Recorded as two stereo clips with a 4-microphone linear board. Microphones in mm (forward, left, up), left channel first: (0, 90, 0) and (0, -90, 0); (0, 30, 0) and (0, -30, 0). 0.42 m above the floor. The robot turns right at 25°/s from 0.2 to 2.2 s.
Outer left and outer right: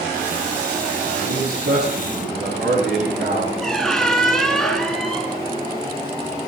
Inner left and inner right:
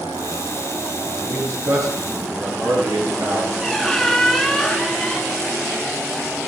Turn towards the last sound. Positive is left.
turn(degrees=5)  # may be behind; listen again after turning